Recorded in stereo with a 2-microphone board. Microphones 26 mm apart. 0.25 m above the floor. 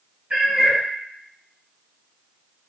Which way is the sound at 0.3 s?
65° right (ahead or behind).